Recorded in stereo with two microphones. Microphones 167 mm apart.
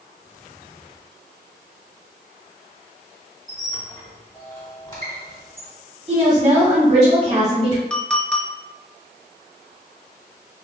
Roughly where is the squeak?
Left.